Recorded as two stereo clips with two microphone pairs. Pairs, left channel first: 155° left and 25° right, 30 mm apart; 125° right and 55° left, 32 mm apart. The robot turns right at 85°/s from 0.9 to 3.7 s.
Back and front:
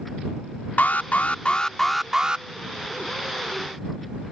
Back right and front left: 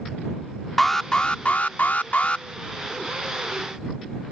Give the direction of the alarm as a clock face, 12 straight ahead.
7 o'clock.